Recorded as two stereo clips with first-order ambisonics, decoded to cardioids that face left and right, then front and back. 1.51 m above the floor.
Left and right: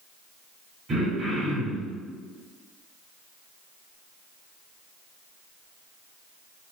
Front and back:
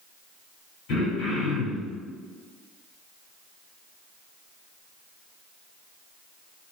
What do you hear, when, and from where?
0.9 s throat clearing: 30° right, 2.0 m